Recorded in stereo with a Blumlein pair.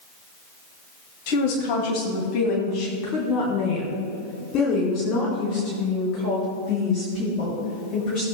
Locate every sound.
1.3 s a woman speaking: 45° left, 2 m; by 8.2 s 30° left, 7 m